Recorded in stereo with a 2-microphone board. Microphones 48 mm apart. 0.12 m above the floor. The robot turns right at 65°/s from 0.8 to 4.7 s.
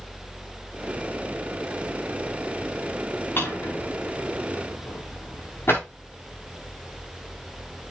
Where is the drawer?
45° left (ahead or behind), 7 m; by 5.8 s 50° left (ahead or behind), 7 m.